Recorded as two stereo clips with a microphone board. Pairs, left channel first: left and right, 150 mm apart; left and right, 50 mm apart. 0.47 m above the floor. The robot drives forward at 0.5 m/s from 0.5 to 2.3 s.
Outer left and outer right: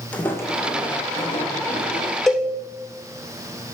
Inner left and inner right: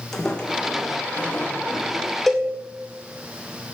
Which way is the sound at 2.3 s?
Centre (ahead or behind).